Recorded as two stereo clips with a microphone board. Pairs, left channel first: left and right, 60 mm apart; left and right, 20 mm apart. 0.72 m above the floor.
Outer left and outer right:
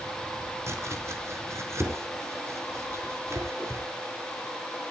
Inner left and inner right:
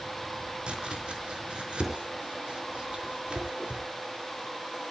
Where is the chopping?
50° right (ahead or behind), 4 m.